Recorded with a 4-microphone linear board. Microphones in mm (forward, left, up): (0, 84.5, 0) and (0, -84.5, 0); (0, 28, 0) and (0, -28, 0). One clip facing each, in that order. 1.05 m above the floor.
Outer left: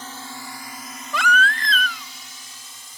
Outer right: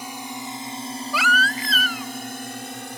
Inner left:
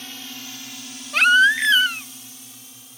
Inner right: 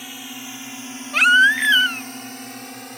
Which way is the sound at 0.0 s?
15° right (ahead or behind).